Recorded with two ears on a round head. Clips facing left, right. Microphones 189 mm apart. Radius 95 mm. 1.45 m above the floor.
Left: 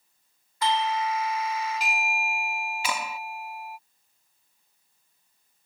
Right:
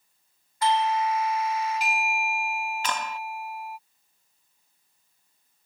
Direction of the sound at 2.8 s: 10° left (ahead or behind).